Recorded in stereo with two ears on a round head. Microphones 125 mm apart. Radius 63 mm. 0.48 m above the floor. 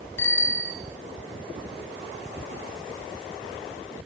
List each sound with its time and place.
0.2 s a bicycle bell: 15° left (ahead or behind), 2.5 m